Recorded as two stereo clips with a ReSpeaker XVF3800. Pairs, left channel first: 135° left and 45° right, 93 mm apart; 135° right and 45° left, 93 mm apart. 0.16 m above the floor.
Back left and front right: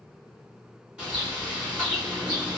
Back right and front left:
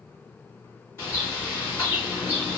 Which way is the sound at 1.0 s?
105° right.